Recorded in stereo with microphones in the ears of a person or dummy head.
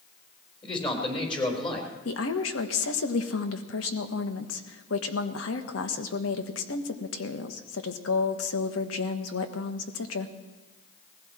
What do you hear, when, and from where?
0.6 s a man speaking: 30° left (ahead or behind), 4 m
2.0 s a woman speaking: 80° left, 1.4 m